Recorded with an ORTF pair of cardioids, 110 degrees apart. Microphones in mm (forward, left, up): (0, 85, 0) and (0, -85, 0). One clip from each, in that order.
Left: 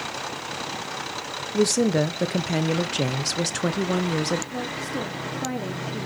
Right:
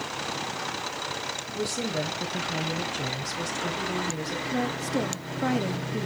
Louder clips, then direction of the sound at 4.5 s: Right 1 dB; 20° right.